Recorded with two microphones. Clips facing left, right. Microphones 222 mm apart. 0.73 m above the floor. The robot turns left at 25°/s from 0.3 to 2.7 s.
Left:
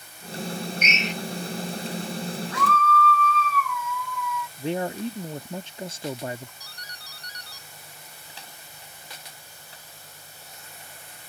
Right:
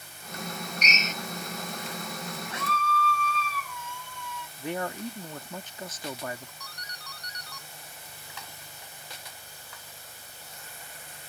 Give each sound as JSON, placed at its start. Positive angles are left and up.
{"t": 0.8, "sound": "a drill", "side_deg": -35}
{"t": 2.5, "sound": "a scream", "side_deg": -25}
{"t": 4.6, "sound": "a man speaking", "side_deg": 25}
{"t": 6.6, "sound": "a doorbell", "side_deg": 30}